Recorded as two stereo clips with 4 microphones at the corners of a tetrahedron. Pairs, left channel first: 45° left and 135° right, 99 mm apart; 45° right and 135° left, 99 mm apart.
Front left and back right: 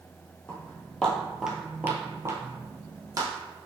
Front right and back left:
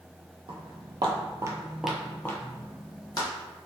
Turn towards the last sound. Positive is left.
turn(degrees=-85)